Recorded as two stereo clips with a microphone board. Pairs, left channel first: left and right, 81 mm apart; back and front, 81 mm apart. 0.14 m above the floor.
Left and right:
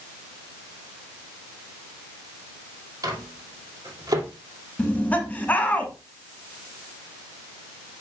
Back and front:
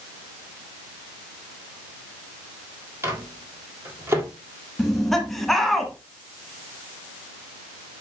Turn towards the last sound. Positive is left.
turn(degrees=95)